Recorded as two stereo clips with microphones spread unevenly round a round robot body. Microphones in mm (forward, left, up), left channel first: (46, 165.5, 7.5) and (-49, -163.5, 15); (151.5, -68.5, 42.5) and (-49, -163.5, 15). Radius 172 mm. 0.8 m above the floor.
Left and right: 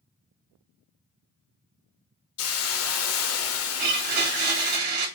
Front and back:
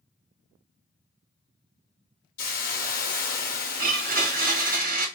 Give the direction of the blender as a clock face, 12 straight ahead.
4 o'clock.